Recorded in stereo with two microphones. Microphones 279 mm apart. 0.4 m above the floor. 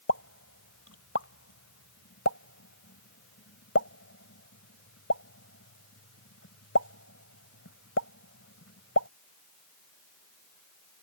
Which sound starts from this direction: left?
A pop, at 0.1 s.